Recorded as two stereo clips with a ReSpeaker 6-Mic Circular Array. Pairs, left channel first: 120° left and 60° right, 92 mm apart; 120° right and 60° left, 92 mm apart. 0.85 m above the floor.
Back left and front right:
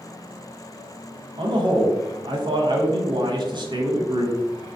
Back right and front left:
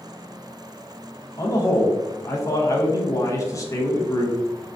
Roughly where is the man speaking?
Right.